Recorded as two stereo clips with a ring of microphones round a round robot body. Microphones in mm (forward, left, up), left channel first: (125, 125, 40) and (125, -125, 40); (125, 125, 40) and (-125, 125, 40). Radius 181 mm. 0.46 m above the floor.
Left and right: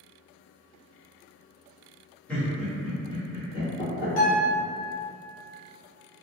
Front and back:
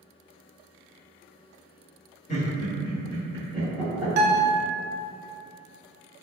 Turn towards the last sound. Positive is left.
turn(degrees=125)